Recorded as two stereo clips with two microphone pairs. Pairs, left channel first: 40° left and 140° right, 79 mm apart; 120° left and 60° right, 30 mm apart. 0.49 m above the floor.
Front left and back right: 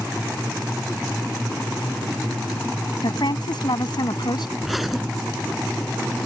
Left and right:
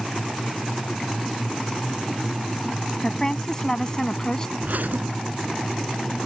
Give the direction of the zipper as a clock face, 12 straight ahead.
2 o'clock.